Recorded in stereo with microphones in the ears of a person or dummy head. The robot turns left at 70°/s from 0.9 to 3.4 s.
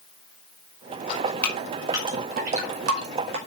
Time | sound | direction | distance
1.1 | dripping | 40° left (ahead or behind) | 5 m